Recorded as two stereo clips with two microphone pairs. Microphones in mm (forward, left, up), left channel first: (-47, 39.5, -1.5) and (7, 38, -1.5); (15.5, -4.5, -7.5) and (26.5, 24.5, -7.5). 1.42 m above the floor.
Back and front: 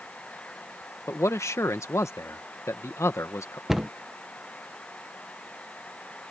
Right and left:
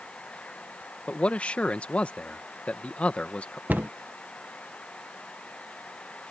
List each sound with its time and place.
1.1 s a man speaking: 155° right
3.7 s a cupboard door: 85° left